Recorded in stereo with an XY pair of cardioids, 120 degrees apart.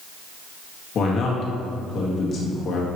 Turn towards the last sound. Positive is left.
turn(degrees=50)